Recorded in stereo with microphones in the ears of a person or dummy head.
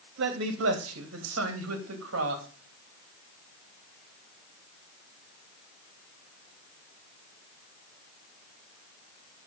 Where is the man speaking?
80° right, 2 m; by 2.5 s 70° right (ahead or behind), 2.5 m.